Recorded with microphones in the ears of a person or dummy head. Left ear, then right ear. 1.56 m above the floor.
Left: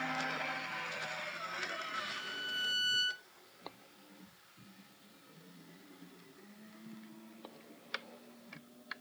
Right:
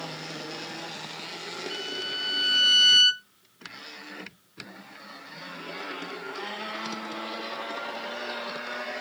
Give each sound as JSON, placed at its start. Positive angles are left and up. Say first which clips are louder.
{"t": 1.7, "sound": "a violin", "louder": "right 8 dB", "side_deg": -60, "distance_m": 1.3}